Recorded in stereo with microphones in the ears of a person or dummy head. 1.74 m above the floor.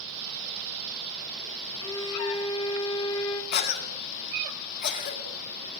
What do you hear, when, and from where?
1.8 s a violin: 20° left (ahead or behind), 2.0 m
3.5 s a cough: 50° left (ahead or behind), 2 m